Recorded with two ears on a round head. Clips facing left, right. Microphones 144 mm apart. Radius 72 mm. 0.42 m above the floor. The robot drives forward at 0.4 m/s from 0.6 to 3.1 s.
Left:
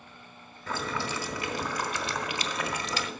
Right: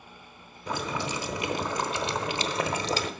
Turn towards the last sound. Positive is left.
turn(degrees=-30)  # may be behind; listen again after turning